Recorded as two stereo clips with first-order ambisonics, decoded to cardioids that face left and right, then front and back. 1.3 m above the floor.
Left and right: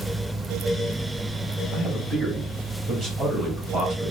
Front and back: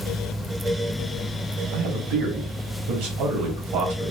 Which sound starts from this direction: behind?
A man speaking, at 1.7 s.